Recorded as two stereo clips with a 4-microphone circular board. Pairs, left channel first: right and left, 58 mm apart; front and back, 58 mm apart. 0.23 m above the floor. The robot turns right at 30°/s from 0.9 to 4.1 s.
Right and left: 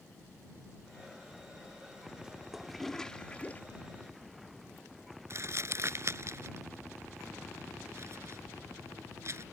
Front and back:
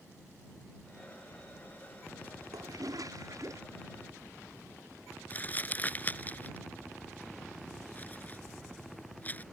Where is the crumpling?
55° left.